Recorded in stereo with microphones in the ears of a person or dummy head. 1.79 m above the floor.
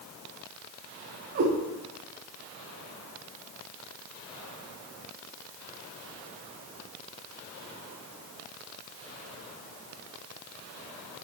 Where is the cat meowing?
35° right (ahead or behind), 1.8 m.